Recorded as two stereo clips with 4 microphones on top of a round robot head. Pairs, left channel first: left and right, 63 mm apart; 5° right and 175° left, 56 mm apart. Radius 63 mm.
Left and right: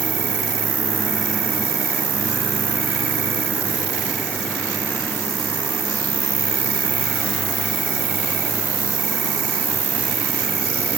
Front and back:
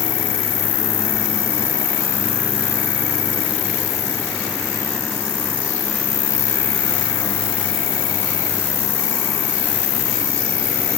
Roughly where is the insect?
Ahead.